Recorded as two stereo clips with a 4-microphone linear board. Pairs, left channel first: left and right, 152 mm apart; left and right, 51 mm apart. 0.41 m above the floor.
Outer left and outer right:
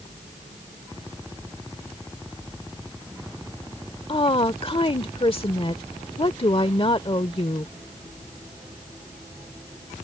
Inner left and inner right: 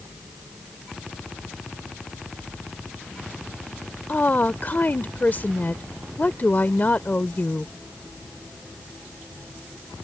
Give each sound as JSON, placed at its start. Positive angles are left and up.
{"t": 4.1, "sound": "a woman speaking", "side_deg": 40}